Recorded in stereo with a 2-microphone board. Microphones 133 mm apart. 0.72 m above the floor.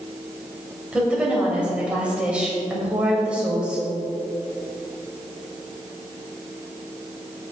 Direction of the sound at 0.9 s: 10° right (ahead or behind).